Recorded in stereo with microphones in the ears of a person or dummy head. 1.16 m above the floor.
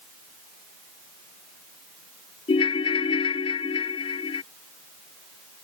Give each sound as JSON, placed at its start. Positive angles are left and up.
{"t": 2.5, "sound": "a ringtone", "side_deg": 35}